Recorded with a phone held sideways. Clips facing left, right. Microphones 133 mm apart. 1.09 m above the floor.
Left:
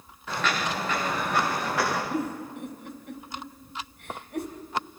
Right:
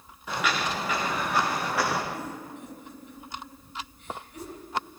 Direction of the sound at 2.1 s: 70° left (ahead or behind).